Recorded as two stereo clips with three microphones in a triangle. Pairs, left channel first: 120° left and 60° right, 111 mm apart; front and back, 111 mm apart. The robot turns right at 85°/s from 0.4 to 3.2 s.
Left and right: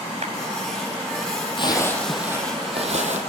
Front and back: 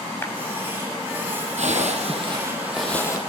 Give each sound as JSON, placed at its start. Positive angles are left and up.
{"t": 0.2, "sound": "a clap", "azimuth_deg": -70, "distance_m": 5.5}
{"t": 1.6, "sound": "a zipper", "azimuth_deg": 165, "distance_m": 4.5}